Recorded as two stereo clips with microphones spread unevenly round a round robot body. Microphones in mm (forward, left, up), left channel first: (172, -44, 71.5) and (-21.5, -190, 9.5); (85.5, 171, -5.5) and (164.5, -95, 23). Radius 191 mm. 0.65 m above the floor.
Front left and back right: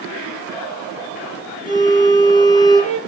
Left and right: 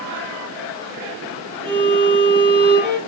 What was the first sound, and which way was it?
A violin, 25° right.